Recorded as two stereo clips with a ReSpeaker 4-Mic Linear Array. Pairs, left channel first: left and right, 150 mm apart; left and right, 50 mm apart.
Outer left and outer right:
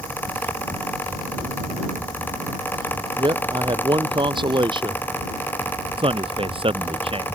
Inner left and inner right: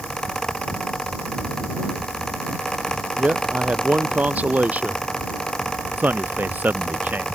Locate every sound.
3.2 s a man speaking: 30° right (ahead or behind)
6.0 s a man speaking: 35° right (ahead or behind)